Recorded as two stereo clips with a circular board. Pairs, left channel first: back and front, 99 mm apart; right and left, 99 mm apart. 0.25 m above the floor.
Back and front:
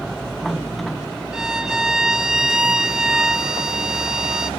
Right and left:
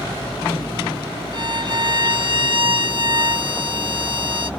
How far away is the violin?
About 0.5 m.